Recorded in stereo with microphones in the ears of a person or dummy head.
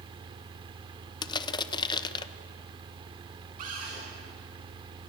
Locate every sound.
0.0 s a fan: 25° right (ahead or behind), 1.2 m
1.2 s crushing: 25° left (ahead or behind), 0.8 m
3.6 s a cupboard door: 45° right (ahead or behind), 10 m